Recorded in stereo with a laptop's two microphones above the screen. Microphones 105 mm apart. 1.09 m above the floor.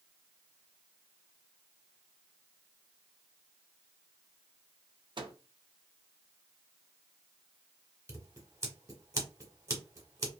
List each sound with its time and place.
5.2 s a microwave: 50° right (ahead or behind), 0.6 m
8.1 s scissors: 30° right (ahead or behind), 1.2 m